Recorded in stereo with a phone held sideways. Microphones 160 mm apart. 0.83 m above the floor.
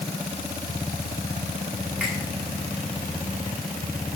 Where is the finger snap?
5° right (ahead or behind), 9 m.